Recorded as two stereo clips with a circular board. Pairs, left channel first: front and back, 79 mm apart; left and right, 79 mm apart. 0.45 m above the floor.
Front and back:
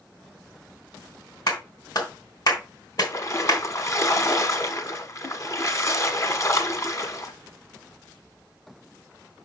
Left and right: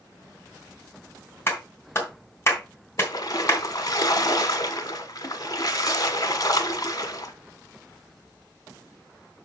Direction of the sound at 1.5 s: 30° left.